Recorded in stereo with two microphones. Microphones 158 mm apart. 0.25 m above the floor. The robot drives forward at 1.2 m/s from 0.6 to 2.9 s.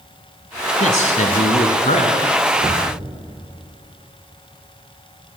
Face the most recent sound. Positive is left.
turn(degrees=-35)  # may be behind; listen again after turning